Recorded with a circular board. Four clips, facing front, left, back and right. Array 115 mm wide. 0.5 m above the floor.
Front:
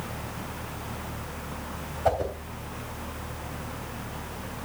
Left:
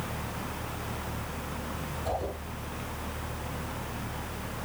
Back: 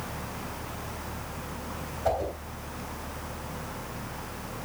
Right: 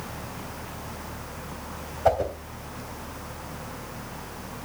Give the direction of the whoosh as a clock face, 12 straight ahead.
2 o'clock.